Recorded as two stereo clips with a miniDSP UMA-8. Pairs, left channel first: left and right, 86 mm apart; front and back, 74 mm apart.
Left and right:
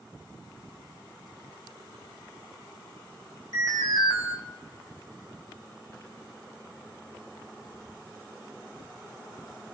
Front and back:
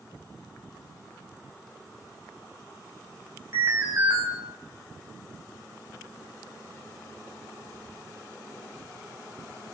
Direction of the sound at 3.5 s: 120° left.